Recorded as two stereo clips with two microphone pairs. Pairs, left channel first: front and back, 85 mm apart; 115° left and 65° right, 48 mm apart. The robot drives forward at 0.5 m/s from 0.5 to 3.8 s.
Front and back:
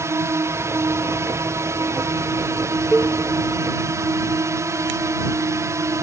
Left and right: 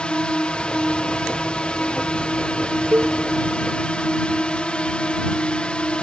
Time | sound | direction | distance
0.0 | a drone | 165° left | ?
2.9 | a cowbell | 90° right | ?